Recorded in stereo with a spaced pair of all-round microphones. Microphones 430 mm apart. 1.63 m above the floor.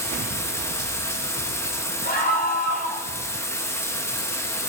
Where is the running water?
5° left (ahead or behind), 1.9 m.